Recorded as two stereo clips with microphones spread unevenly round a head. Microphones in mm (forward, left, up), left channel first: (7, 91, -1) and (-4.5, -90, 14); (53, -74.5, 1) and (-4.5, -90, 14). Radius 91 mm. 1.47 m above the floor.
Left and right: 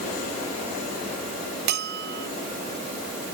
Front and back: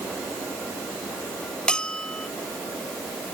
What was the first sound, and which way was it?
A bell, 60° right.